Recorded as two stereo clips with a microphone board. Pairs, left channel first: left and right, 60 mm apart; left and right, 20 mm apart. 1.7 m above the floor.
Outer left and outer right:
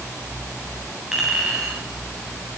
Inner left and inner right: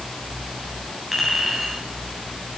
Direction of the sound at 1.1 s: 5° right (ahead or behind).